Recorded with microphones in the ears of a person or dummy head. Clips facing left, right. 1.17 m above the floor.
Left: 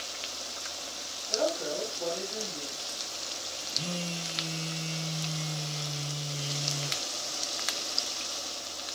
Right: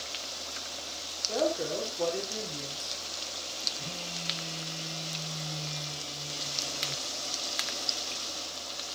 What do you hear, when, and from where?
1.3 s a woman speaking: 75° right (ahead or behind), 3.5 m
3.8 s a phone buzzing: 40° left (ahead or behind), 2 m